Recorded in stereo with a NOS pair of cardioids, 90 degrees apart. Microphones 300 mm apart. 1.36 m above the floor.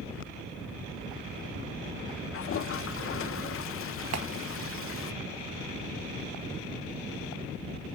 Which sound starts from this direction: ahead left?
A toilet flushing, at 2.3 s.